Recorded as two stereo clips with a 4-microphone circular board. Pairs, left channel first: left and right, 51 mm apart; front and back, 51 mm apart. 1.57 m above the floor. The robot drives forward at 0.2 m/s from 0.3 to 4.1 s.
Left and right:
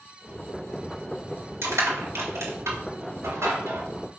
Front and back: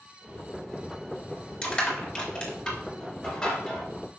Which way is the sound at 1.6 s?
70° right.